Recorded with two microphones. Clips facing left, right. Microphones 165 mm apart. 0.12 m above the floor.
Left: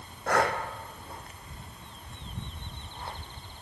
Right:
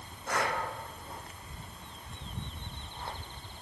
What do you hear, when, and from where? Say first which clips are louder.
0.3 s breathing: left 6 dB; 80° left, 1.1 m